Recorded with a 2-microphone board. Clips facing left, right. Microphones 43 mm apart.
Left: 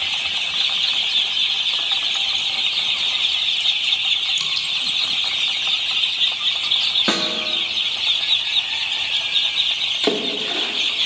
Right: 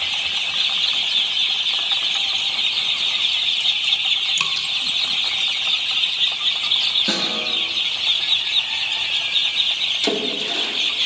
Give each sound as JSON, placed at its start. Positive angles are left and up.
{"t": 4.4, "sound": "dripping", "side_deg": -55, "distance_m": 1.0}
{"t": 7.1, "sound": "a snare drum", "side_deg": 50, "distance_m": 1.4}
{"t": 10.0, "sound": "a splash", "side_deg": 25, "distance_m": 1.8}